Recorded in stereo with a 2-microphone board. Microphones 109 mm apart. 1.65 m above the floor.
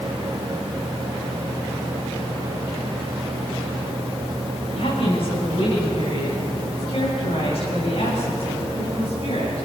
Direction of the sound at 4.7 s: 55° left (ahead or behind).